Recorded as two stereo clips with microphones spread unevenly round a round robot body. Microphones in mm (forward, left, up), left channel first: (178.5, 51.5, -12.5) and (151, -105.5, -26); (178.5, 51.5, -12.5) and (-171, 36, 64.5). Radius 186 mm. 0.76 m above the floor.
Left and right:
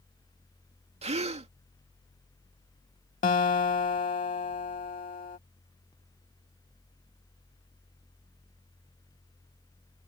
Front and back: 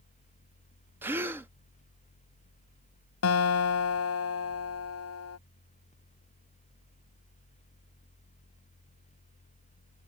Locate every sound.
1.0 s a gasp: 85° right
3.2 s a guitar: 55° left